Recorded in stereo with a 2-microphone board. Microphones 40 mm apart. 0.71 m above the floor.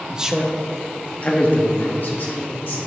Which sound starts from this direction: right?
A man speaking, at 0.1 s.